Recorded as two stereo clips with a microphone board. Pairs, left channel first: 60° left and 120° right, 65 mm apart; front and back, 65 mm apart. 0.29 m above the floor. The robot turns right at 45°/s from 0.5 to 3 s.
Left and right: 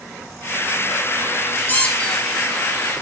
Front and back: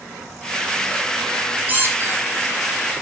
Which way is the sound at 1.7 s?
120° left.